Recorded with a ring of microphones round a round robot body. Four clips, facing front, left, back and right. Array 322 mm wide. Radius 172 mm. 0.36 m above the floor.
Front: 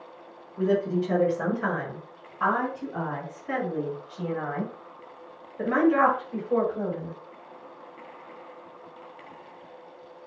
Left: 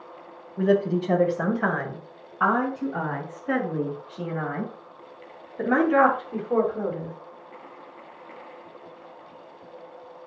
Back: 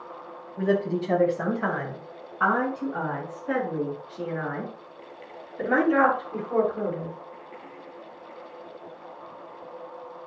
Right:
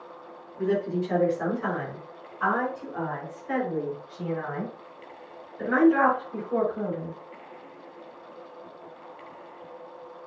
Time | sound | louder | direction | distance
0.6 | a woman speaking | left 4 dB, even | 115° left | 3.5 m